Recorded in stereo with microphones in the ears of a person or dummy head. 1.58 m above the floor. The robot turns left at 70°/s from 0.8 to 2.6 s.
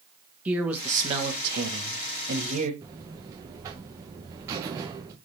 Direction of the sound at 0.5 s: 10° right.